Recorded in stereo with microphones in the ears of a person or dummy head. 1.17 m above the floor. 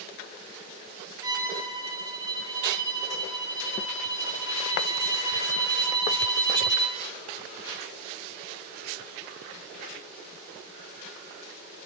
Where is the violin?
10° right (ahead or behind), 0.9 m.